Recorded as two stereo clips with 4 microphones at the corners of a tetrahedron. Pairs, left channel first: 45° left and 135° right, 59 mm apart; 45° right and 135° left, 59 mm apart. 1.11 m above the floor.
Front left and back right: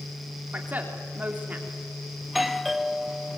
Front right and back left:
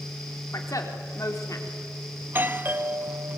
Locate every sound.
0.5 s a woman speaking: 75° right, 3.5 m
2.2 s a doorbell: 135° left, 0.9 m